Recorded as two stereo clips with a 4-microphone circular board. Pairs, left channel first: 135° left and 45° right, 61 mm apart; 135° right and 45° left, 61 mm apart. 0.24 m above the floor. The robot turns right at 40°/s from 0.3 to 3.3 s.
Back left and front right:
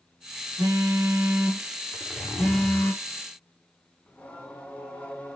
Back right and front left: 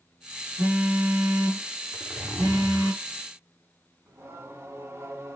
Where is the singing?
75° left, 1.6 m.